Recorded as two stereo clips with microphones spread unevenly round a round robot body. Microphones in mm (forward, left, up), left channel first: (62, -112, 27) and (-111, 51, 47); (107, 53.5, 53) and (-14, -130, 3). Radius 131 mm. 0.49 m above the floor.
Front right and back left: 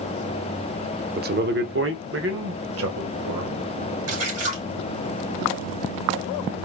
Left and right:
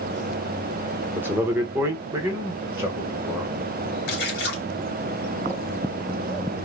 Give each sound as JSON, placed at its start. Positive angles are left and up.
{"t": 1.2, "sound": "a man speaking", "azimuth_deg": 175, "distance_m": 0.9}
{"t": 4.1, "sound": "a splash", "azimuth_deg": 110, "distance_m": 3.5}